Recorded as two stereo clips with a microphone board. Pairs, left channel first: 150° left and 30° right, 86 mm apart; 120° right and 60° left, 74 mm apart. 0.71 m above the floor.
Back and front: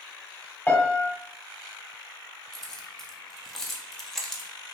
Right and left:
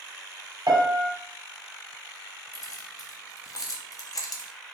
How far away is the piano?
About 1.0 m.